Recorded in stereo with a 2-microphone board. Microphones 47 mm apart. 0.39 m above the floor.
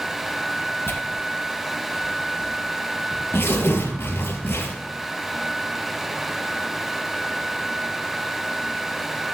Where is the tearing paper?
55° left (ahead or behind), 3 m.